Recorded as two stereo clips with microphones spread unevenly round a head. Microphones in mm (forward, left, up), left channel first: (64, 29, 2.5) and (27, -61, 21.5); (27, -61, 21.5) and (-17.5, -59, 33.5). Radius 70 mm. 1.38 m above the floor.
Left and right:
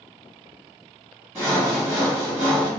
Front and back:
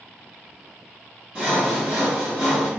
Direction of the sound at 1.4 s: 160° right.